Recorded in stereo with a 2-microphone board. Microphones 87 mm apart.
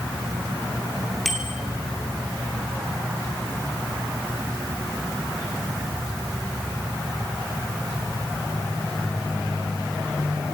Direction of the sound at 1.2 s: Centre (ahead or behind).